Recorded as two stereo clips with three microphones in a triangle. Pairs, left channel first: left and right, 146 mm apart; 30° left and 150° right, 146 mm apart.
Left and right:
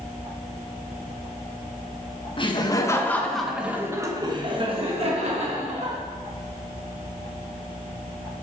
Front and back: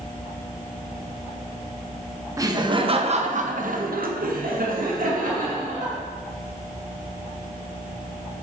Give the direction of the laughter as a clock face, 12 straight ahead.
7 o'clock.